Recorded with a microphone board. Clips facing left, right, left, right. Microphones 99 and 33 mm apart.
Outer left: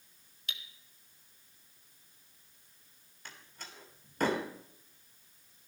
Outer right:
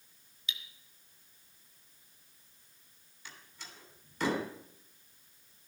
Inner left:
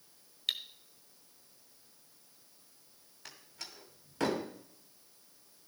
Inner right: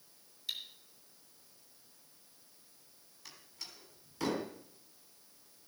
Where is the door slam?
50° left (ahead or behind), 2 m.